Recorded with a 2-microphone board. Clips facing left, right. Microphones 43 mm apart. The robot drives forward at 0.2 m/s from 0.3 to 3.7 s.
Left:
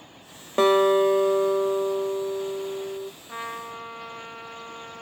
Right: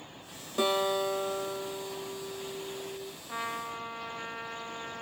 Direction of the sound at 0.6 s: 45° left (ahead or behind).